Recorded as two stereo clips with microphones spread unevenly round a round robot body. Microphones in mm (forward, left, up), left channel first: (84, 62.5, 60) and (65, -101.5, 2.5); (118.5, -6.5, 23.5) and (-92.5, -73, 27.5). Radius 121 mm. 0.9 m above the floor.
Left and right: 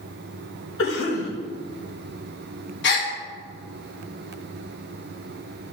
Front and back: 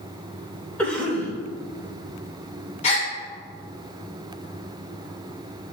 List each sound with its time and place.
0.8 s a cough: 100° left, 3.5 m
2.8 s a gasp: 80° left, 1.5 m